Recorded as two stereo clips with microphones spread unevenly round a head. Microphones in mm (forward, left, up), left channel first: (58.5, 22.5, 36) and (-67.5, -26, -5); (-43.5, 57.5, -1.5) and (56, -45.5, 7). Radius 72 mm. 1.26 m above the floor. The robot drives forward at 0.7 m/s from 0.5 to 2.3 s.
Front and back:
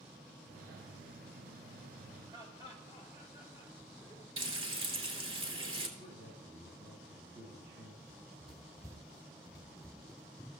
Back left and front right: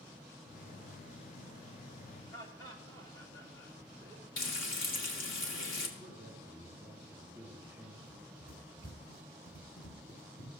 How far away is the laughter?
About 3 m.